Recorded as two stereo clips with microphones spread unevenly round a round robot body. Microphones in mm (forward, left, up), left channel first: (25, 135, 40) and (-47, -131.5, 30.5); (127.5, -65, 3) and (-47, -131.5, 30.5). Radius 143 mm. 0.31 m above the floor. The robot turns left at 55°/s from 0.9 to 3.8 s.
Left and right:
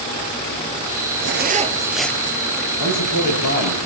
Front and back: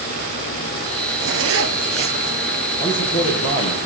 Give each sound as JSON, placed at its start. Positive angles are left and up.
{"t": 1.2, "sound": "a zipper", "azimuth_deg": -150, "distance_m": 1.6}
{"t": 2.8, "sound": "a man speaking", "azimuth_deg": 75, "distance_m": 8.0}